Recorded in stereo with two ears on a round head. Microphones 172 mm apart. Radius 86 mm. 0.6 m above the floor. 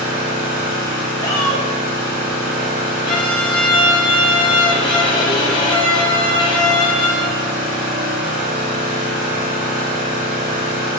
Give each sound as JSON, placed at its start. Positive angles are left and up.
{"t": 0.0, "sound": "an engine running", "side_deg": -45, "distance_m": 1.5}
{"t": 1.2, "sound": "a shout", "side_deg": 20, "distance_m": 0.7}
{"t": 3.0, "sound": "a violin", "side_deg": 25, "distance_m": 0.6}